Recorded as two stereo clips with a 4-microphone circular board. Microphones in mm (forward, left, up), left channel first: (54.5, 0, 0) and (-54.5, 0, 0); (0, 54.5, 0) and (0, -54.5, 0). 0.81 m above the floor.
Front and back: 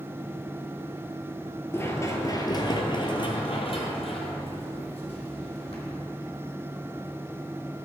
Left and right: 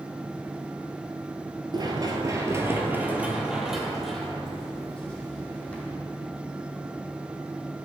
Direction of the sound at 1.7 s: 60° right.